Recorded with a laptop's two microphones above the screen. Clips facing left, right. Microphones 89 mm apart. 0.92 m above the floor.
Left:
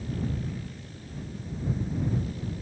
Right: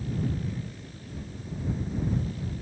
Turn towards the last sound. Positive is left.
No sound to turn to.